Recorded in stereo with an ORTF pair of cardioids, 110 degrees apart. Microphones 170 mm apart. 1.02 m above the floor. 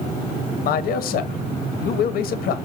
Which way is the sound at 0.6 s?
65° left.